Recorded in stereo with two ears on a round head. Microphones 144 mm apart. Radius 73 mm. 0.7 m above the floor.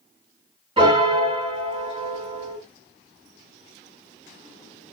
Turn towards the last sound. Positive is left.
turn(degrees=-35)  # may be behind; listen again after turning